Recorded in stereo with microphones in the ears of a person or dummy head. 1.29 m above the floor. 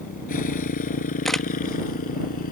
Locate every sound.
0.0 s a motorcycle: 45° left (ahead or behind)
1.2 s a camera shutter: centre (ahead or behind)